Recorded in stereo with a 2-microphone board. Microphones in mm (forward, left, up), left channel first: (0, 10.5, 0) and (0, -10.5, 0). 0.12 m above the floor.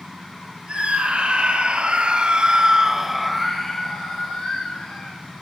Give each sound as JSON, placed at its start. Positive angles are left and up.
{"t": 0.7, "sound": "a scream", "side_deg": -55, "distance_m": 3.5}